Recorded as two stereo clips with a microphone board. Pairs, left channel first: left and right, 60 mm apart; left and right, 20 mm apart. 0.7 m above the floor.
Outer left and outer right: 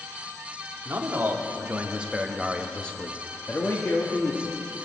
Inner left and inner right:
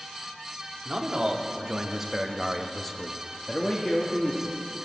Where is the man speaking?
35° right (ahead or behind), 2.0 m; by 4.6 s 45° left (ahead or behind), 2.0 m.